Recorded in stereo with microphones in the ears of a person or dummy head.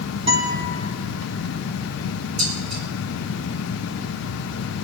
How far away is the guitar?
About 2.5 m.